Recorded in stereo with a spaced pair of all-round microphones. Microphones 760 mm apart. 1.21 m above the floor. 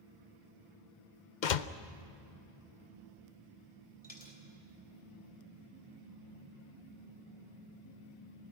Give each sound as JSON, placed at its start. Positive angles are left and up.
{"t": 1.4, "sound": "a door slam", "side_deg": 75, "distance_m": 0.8}
{"t": 4.0, "sound": "a dropped coin", "side_deg": 10, "distance_m": 2.5}